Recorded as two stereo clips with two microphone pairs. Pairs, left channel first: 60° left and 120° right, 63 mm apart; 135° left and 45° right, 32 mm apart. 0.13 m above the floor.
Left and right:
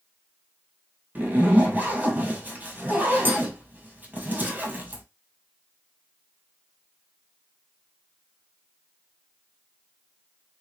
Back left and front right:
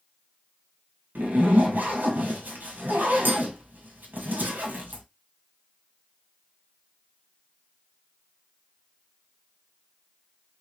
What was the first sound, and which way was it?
A zipper, 60° right.